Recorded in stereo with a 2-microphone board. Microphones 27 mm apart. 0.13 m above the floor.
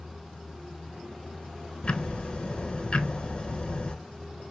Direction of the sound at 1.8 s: 35° left (ahead or behind).